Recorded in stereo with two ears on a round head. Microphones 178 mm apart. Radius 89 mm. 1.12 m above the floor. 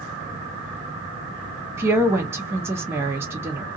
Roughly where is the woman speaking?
Centre.